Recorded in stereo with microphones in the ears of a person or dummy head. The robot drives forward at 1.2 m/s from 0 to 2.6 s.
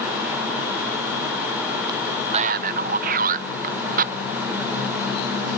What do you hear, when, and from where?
1.9 s a man speaking: 20° right (ahead or behind); by 4.1 s 35° right (ahead or behind)